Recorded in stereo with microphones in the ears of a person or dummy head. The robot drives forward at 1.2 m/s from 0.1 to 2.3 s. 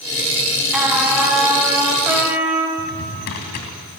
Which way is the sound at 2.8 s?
55° left (ahead or behind).